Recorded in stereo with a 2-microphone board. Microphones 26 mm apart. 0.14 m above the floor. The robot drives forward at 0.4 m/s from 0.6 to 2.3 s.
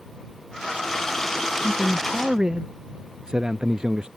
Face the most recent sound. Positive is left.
turn(degrees=-20)  # may be behind; listen again after turning